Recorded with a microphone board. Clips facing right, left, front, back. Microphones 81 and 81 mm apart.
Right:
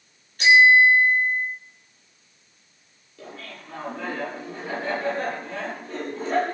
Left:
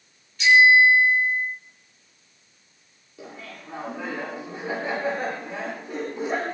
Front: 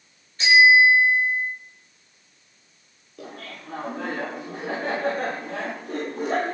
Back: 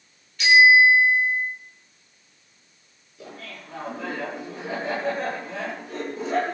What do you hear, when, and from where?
0.4 s a bicycle bell: 55° right, 6.5 m
3.2 s laughter: 15° left, 8 m